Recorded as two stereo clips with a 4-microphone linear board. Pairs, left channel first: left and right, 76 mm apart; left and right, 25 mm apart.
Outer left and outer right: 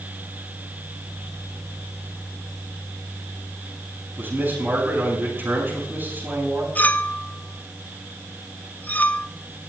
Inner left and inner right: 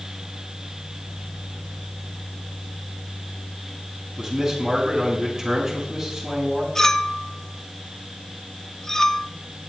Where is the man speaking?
30° right (ahead or behind), 8 m.